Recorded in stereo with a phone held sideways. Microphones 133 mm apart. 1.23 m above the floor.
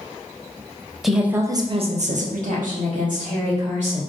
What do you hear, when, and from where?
1.0 s a woman speaking: centre (ahead or behind), 0.6 m; by 4.0 s 70° right (ahead or behind), 1.3 m